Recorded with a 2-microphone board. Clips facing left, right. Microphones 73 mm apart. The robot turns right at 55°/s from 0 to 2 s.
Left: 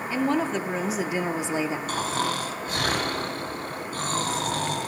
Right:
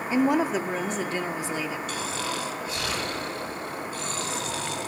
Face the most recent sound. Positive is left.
turn(degrees=50)  # may be behind; listen again after turning